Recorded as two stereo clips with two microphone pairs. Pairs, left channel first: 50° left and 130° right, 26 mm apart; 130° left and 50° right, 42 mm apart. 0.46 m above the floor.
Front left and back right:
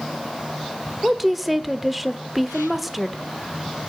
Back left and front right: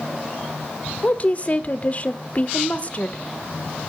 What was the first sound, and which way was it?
A woman speaking, 150° left.